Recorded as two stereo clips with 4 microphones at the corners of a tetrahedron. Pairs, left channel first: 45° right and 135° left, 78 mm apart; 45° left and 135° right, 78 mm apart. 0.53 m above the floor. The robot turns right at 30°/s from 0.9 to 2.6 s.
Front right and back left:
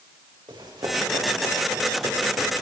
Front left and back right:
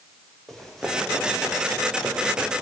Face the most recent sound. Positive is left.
turn(degrees=175)